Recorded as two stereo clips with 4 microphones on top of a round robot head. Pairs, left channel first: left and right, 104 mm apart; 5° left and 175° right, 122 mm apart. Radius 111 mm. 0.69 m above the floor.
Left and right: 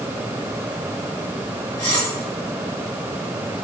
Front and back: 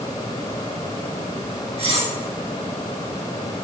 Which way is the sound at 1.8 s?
150° left.